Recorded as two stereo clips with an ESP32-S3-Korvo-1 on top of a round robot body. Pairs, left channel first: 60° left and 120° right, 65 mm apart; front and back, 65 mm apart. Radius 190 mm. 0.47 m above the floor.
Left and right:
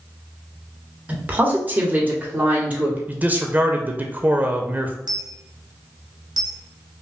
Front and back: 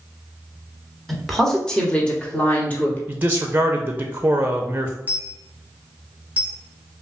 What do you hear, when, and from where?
1.1 s a woman speaking: 85° right, 1.4 m; by 3.0 s 55° right, 2 m
3.1 s a man speaking: 155° right, 0.8 m
5.1 s a dropped coin: 110° right, 0.8 m